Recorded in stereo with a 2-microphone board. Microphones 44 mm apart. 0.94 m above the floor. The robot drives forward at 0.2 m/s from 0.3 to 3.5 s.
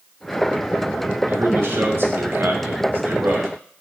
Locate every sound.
1.3 s a man speaking: 60° right (ahead or behind), 1.2 m; by 3.5 s 45° right (ahead or behind), 1.4 m